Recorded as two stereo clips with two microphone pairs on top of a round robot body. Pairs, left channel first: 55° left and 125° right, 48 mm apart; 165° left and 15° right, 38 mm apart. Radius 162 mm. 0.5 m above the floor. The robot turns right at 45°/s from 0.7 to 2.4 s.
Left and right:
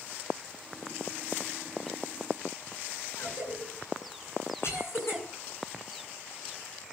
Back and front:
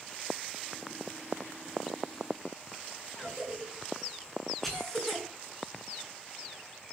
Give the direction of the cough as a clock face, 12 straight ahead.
9 o'clock.